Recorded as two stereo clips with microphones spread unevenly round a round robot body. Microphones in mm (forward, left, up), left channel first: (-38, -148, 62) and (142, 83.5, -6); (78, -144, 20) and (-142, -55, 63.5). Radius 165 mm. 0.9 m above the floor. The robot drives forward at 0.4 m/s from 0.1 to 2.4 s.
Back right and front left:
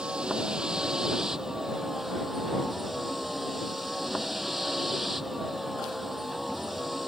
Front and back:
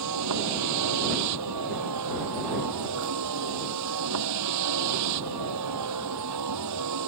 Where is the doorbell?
I don't hear a doorbell.